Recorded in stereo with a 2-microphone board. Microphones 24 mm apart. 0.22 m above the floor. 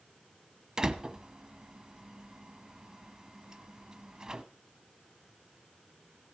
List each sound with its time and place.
0.8 s a door slam: 30° right (ahead or behind), 0.9 m